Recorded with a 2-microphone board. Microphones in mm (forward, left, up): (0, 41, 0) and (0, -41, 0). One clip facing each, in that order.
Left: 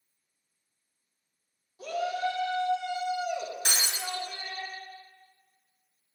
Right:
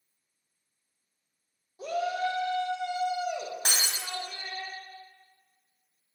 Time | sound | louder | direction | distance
1.8 | a shout | right 1 dB | 25° right (ahead or behind) | 1.3 m
3.6 | breaking glass | even | 50° right (ahead or behind) | 1.8 m